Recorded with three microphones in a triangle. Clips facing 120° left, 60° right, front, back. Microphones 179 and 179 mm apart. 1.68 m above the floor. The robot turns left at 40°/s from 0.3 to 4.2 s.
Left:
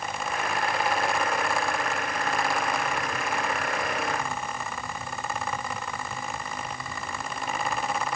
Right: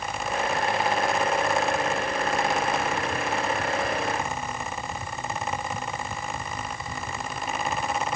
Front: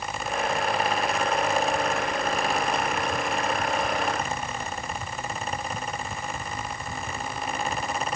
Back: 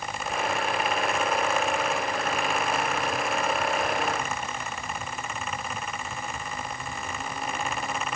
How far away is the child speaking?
No child speaking in this recording.